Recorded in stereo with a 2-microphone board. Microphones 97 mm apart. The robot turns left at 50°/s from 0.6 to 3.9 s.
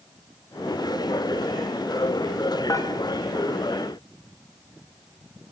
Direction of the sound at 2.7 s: 35° left (ahead or behind).